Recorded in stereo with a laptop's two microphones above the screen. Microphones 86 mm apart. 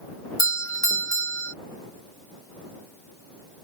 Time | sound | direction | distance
0.4 | a doorbell | 40° left (ahead or behind) | ?